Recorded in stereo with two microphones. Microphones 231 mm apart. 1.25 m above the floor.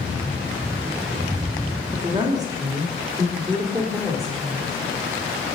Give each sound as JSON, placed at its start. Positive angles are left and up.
{"t": 1.9, "sound": "a woman speaking", "side_deg": -20, "distance_m": 2.0}